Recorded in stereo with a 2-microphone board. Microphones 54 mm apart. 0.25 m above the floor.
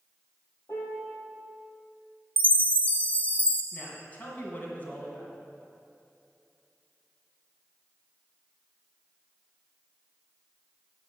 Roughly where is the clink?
I don't hear a clink.